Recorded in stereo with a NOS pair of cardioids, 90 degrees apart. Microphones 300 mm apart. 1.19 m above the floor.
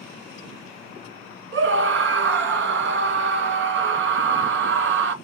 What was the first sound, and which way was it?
A scream, 40° right.